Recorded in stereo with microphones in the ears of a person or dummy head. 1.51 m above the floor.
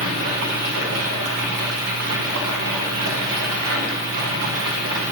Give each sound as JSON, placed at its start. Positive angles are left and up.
{"t": 0.0, "sound": "running water", "side_deg": -65, "distance_m": 1.1}